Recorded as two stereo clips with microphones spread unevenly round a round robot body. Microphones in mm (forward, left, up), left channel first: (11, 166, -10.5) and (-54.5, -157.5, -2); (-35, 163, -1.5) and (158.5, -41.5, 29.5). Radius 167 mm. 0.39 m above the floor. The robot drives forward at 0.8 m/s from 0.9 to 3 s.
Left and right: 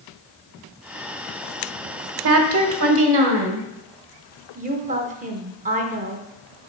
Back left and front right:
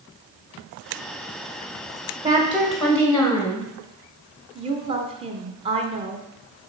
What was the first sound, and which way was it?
A woman speaking, 125° right.